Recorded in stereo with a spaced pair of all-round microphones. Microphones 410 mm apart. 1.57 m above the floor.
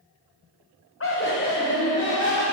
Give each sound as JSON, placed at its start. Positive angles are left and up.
{"t": 1.0, "sound": "laughter", "side_deg": 30, "distance_m": 0.6}